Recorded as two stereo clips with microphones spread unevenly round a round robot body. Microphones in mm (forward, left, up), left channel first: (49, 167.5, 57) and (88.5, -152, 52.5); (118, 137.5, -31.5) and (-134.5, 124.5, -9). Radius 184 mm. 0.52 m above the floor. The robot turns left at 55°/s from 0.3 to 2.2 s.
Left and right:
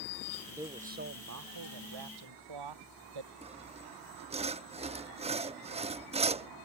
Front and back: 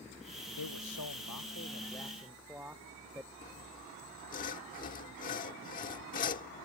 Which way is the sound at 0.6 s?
Straight ahead.